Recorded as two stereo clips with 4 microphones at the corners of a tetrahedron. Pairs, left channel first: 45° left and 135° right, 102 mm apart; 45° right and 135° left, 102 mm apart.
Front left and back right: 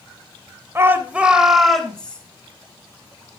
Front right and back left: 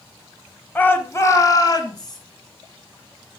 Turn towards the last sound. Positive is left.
turn(degrees=-30)